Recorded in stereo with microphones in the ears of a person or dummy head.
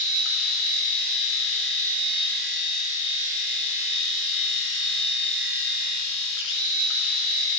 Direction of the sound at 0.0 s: 70° left (ahead or behind).